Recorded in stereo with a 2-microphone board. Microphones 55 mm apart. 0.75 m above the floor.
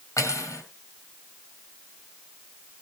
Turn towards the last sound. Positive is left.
turn(degrees=75)  # may be behind; listen again after turning